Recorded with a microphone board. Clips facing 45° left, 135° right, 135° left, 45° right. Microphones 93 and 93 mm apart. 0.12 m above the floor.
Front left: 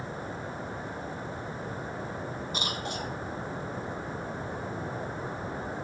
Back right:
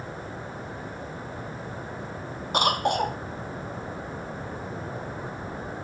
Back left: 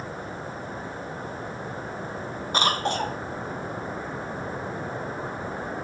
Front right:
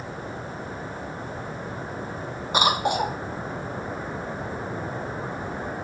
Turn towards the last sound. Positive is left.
turn(degrees=-120)